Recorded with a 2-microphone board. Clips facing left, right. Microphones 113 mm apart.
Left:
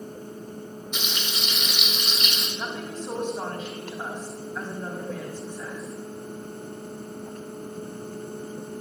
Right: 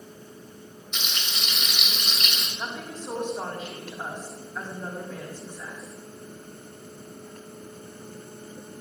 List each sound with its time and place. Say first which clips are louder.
0.9 s frying: left 2 dB; 5° left (ahead or behind), 2 m
2.6 s a woman speaking: left 1 dB; centre (ahead or behind), 3.5 m